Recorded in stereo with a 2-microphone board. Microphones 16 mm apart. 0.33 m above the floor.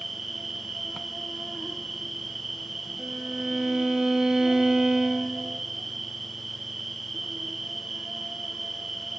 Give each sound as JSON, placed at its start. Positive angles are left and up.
{"t": 0.0, "sound": "an insect", "side_deg": -15, "distance_m": 1.5}
{"t": 3.0, "sound": "a violin", "side_deg": -55, "distance_m": 0.7}